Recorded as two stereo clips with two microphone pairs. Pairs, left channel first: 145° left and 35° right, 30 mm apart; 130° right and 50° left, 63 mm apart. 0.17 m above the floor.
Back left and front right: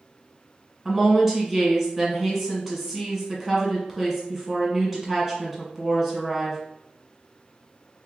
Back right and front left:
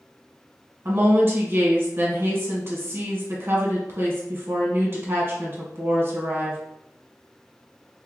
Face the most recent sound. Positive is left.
turn(degrees=45)